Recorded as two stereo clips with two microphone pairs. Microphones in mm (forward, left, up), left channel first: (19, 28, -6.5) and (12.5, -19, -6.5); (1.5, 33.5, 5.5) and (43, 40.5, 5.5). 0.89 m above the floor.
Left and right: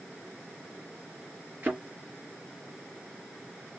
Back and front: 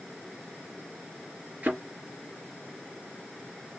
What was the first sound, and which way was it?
A thud, 40° right.